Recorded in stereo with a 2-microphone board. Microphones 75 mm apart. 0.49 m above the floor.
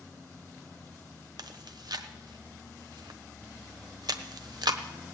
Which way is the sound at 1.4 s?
70° right (ahead or behind).